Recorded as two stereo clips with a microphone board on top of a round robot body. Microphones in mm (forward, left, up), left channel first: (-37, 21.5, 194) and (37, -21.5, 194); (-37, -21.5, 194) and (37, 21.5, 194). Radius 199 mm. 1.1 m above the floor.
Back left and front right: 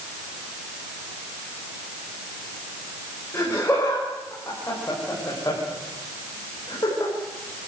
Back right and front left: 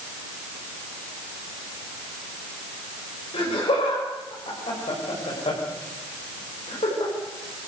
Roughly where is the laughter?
Behind right.